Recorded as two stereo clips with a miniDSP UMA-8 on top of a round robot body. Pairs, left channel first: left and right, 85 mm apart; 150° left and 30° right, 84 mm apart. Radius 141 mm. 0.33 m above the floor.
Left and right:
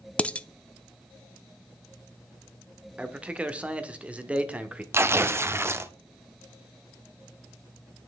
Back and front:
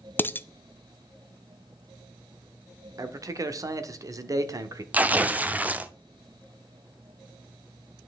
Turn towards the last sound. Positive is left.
turn(degrees=-80)